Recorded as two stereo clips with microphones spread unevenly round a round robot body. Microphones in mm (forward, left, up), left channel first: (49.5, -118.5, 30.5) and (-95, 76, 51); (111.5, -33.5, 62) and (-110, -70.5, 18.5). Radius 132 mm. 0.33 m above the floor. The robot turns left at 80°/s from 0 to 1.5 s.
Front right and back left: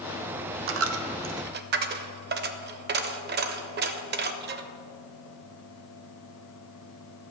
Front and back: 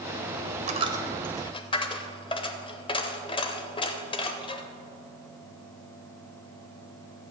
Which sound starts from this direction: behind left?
A dropped coin, at 0.7 s.